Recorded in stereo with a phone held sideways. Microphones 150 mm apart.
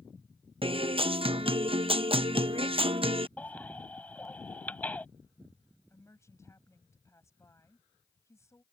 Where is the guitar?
35° right (ahead or behind).